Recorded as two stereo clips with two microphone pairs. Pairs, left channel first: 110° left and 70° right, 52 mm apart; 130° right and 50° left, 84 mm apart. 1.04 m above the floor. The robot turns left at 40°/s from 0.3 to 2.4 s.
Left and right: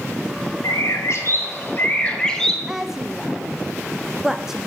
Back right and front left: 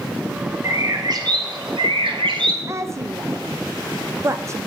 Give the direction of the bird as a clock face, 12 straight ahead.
9 o'clock.